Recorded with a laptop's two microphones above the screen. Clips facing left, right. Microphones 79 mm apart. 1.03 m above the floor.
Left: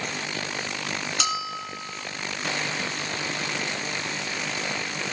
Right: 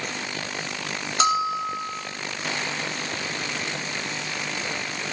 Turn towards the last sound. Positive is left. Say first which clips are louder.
# right 12 dB
turn(degrees=-40)  # may be behind; listen again after turning